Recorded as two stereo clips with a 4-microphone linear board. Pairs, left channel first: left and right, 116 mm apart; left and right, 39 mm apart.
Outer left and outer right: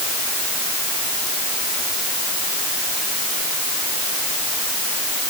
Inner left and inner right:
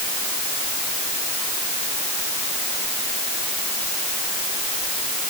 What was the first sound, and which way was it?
Only background noise.